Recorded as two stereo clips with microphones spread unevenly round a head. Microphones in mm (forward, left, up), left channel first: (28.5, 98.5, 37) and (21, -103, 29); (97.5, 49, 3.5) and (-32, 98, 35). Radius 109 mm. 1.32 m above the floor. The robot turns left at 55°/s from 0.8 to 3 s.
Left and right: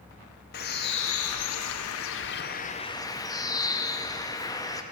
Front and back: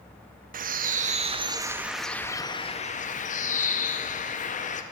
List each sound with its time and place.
0.5 s a bird: 135° left, 0.6 m; by 4.8 s 15° left, 0.6 m